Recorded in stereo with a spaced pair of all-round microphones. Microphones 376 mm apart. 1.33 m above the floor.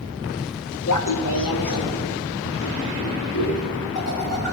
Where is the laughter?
55° left (ahead or behind), 0.8 m; by 4.5 s 80° left, 4 m.